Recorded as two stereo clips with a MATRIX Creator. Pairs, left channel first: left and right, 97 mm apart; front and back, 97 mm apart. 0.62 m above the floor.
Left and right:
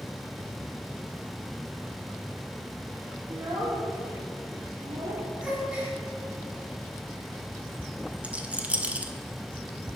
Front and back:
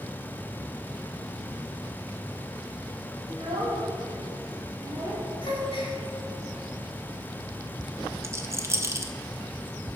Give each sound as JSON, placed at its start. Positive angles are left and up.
{"t": 3.3, "sound": "a child speaking", "azimuth_deg": -150, "distance_m": 2.0}
{"t": 5.4, "sound": "a gasp", "azimuth_deg": -10, "distance_m": 3.0}
{"t": 8.2, "sound": "a rattle", "azimuth_deg": -150, "distance_m": 0.7}